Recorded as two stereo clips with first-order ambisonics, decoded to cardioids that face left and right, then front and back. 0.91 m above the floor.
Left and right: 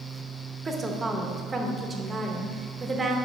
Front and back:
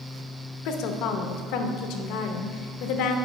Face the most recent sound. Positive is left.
turn(degrees=-15)